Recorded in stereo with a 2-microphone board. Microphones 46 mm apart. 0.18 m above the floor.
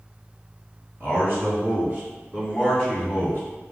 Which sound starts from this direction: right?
A man speaking, at 1.0 s.